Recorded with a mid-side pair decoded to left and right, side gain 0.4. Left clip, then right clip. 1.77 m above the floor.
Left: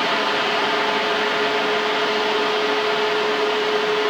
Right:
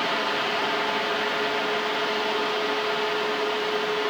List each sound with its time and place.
0.0 s a fan: 35° left, 1.6 m